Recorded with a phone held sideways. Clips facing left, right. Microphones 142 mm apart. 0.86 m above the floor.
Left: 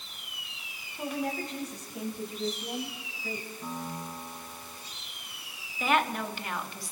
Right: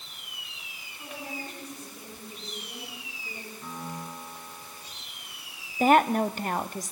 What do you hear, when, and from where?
1.0 s a woman speaking: 70° left (ahead or behind), 7 m; by 3.5 s 75° left (ahead or behind), 5.5 m
3.6 s a piano: 20° left (ahead or behind), 6.5 m
5.8 s a woman speaking: 40° right (ahead or behind), 1.2 m